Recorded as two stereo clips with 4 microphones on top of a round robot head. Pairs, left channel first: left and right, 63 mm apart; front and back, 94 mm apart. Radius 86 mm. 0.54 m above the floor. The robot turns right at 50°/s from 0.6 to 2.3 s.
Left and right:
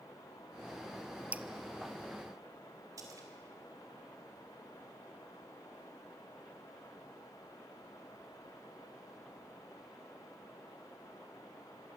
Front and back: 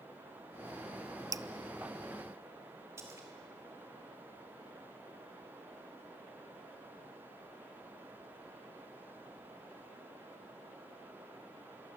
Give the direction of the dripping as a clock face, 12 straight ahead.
5 o'clock.